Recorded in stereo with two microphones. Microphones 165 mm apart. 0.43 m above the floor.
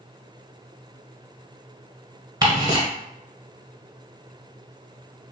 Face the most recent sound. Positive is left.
turn(degrees=-25)  # may be behind; listen again after turning